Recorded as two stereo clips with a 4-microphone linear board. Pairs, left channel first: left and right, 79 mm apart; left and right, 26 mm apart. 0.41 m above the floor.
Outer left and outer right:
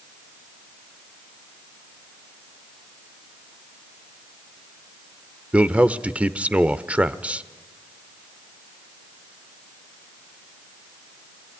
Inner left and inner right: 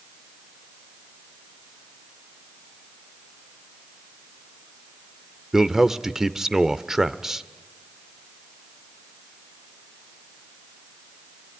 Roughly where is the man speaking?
Centre.